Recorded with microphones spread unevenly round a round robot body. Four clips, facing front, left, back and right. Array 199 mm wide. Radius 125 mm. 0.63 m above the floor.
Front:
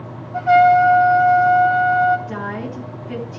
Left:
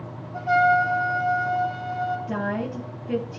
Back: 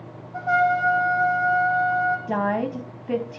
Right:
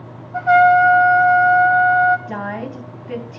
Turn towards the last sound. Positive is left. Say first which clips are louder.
# right 1 dB, back 3 dB
turn(degrees=170)